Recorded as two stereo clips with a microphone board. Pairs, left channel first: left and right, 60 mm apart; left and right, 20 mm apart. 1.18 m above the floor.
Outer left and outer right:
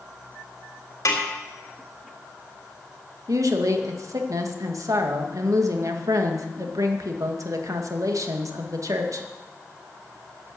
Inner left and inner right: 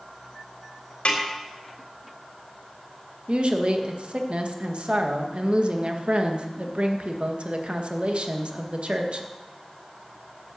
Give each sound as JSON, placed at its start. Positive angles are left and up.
{"t": 1.1, "sound": "a snare drum", "side_deg": 70, "distance_m": 3.0}
{"t": 3.3, "sound": "a woman speaking", "side_deg": -70, "distance_m": 1.6}